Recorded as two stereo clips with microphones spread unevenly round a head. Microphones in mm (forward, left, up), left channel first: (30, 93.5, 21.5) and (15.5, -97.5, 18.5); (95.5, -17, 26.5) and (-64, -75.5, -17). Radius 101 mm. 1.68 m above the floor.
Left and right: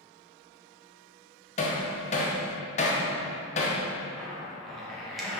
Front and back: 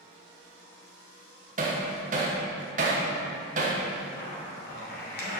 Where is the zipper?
5° right, 1.9 m.